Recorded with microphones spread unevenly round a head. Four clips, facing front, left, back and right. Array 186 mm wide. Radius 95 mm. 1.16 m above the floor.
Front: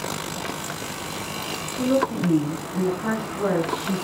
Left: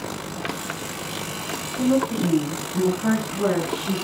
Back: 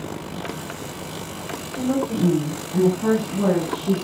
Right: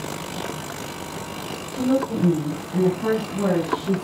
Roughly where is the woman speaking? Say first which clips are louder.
Left 1 dB, front 1 dB; behind right.